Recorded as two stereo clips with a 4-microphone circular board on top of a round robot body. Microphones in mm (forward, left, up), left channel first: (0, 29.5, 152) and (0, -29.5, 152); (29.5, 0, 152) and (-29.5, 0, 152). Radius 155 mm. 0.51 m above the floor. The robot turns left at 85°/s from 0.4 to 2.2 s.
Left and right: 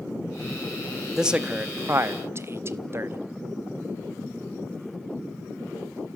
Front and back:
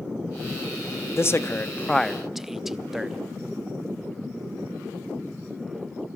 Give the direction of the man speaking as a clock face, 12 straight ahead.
12 o'clock.